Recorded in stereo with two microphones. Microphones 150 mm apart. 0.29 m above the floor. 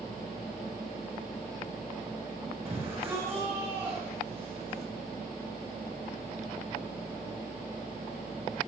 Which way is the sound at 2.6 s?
15° right (ahead or behind).